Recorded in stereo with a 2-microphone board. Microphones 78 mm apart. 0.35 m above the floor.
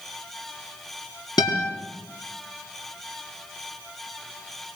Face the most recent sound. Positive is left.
turn(degrees=60)  # may be behind; listen again after turning